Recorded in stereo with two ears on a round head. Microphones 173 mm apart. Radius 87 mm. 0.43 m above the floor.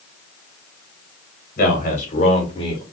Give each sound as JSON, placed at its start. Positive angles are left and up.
{"t": 1.6, "sound": "a man speaking", "side_deg": 45, "distance_m": 2.0}